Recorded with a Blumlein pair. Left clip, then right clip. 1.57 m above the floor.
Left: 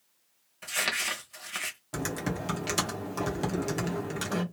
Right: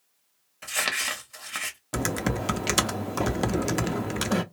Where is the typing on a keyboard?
25° right, 0.5 m.